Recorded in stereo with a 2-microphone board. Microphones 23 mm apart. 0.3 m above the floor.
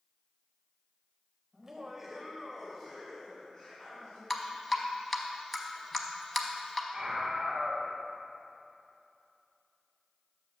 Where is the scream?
20° right (ahead or behind), 1.2 m.